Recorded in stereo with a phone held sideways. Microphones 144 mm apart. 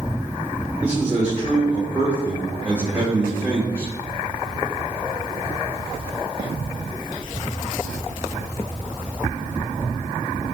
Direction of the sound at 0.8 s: 15° right (ahead or behind).